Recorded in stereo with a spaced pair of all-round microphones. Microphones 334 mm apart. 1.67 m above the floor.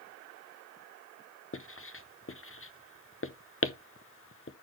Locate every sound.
1.5 s writing: 40° left (ahead or behind), 0.8 m